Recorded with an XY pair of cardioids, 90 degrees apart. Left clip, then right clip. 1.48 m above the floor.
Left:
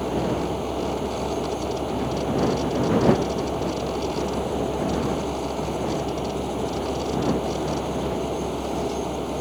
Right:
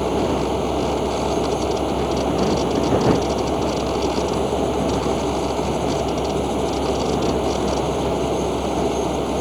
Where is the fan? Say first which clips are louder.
Right 5 dB; 45° right.